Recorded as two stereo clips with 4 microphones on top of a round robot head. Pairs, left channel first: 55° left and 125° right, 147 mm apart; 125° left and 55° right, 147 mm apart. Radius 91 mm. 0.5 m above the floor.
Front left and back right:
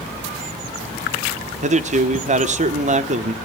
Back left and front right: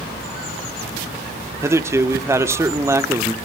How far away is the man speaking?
About 1.1 m.